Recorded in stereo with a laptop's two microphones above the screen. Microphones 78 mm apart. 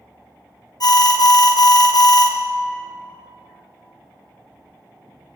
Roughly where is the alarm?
Left.